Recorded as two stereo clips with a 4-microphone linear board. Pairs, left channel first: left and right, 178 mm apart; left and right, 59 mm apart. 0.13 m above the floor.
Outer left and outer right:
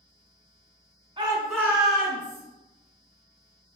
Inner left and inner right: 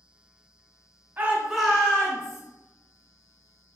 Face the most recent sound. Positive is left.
turn(degrees=50)  # may be behind; listen again after turning